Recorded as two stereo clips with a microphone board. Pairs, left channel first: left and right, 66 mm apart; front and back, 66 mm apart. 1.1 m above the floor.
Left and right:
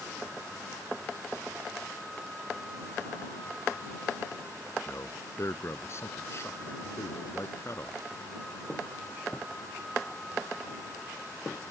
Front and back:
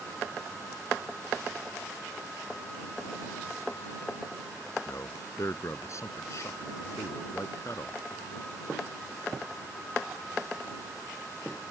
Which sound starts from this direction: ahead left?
A man speaking, at 4.9 s.